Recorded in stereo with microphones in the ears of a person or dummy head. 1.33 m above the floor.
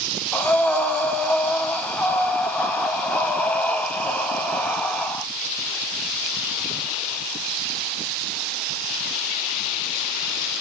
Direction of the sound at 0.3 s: 15° left (ahead or behind).